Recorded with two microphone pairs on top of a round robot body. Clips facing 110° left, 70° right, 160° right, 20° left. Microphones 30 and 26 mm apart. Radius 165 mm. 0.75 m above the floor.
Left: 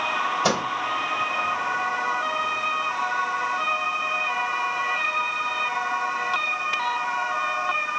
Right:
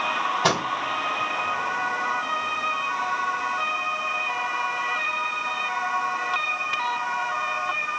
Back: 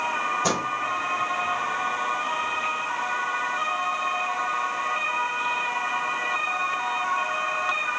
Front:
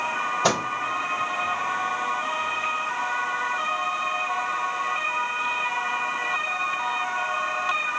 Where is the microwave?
30° right, 2.5 m.